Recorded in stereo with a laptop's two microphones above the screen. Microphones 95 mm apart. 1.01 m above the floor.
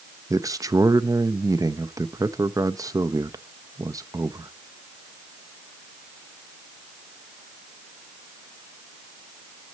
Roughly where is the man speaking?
Right.